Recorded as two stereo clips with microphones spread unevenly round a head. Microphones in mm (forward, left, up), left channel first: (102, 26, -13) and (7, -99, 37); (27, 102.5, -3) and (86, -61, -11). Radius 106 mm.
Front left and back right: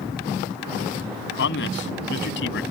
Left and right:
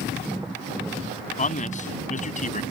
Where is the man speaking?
65° left.